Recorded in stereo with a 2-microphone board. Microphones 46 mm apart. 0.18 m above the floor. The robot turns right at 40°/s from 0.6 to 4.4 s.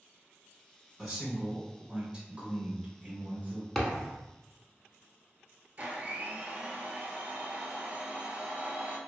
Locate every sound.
1.0 s a man speaking: centre (ahead or behind), 1.1 m; by 3.6 s 25° right (ahead or behind), 1.1 m
3.8 s a thud: 5° left (ahead or behind), 0.7 m; by 4.2 s 5° right (ahead or behind), 0.7 m
5.8 s a blender: 40° right (ahead or behind), 0.6 m